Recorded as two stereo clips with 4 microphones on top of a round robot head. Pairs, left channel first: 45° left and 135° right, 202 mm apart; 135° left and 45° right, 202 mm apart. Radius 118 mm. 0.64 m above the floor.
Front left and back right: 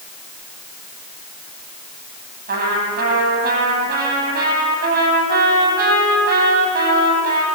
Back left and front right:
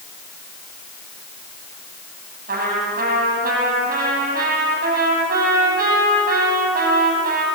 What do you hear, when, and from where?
2.5 s a trumpet: 95° right, 9.5 m